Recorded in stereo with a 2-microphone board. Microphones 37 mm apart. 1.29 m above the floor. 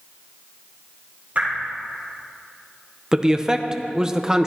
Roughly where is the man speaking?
Centre.